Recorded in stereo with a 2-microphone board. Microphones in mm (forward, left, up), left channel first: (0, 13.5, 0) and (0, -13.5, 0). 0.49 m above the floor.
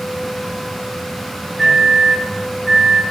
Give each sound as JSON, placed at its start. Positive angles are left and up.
{"t": 1.6, "sound": "a microwave", "side_deg": 5, "distance_m": 4.0}